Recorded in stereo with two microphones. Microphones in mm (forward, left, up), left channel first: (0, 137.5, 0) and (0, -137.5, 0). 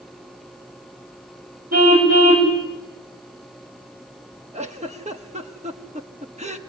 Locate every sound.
1.7 s a car horn: 75° right (ahead or behind), 5 m
4.5 s a giggle: 25° right (ahead or behind), 1.1 m